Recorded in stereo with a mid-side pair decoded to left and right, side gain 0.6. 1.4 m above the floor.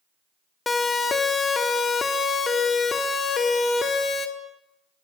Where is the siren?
20° left, 3.5 m; by 4.3 s 35° left, 5.5 m.